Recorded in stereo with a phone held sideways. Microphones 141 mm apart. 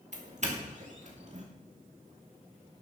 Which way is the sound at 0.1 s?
55° right (ahead or behind).